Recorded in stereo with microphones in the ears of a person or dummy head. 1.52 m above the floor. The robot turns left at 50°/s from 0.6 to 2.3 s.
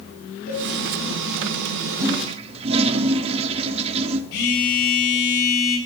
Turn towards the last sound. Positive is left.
turn(degrees=75)  # may be behind; listen again after turning